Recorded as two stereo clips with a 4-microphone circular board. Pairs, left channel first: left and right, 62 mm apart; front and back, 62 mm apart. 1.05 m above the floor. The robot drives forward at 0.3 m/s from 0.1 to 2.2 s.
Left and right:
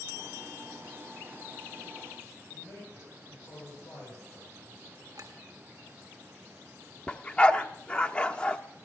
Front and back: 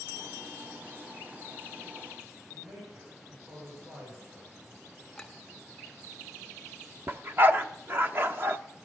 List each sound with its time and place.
2.5 s a man speaking: 130° left, 7 m
5.2 s a clink: 85° right, 1.7 m
7.1 s a dog barking: 150° left, 0.7 m